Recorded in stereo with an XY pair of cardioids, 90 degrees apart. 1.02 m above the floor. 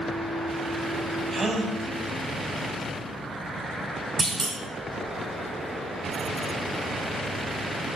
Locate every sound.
1.3 s a gasp: 45° right, 1.2 m
4.2 s a clunk: 40° right, 1.5 m